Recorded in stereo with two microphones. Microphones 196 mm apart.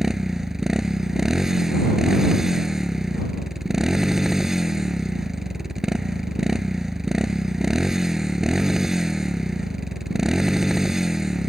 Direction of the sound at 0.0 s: Centre (ahead or behind).